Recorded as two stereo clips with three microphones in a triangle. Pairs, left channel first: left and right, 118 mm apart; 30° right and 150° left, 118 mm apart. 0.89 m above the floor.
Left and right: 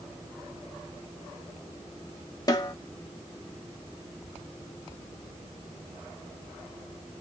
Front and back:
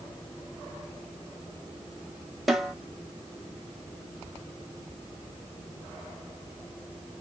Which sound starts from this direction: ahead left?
A snare drum, at 2.5 s.